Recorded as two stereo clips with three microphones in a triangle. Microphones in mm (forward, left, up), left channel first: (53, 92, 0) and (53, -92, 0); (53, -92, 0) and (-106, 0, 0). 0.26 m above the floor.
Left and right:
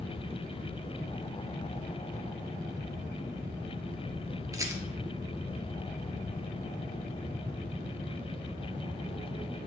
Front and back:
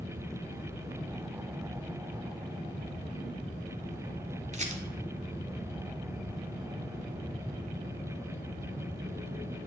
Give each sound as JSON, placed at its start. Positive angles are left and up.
{"t": 4.5, "sound": "a rattle", "azimuth_deg": -160, "distance_m": 1.4}